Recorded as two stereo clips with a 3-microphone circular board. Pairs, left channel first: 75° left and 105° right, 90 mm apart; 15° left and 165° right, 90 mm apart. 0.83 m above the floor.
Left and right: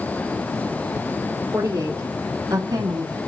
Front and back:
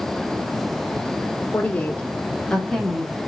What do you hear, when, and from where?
1.5 s a woman speaking: 50° right, 3.5 m; by 3.2 s 80° right, 1.9 m